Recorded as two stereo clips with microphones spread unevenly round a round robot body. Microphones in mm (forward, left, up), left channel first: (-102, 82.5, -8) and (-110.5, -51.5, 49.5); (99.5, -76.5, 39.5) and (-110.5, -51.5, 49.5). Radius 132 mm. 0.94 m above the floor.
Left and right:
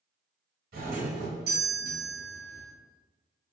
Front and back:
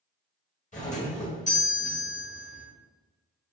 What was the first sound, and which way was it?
A doorbell, 60° right.